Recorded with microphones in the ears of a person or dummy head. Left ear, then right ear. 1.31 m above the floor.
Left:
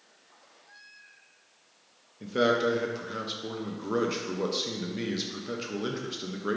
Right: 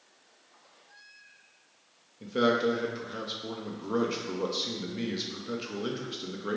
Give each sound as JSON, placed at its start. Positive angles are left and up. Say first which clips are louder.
{"t": 2.2, "sound": "a man speaking", "louder": "left 1 dB", "side_deg": 10, "distance_m": 0.5}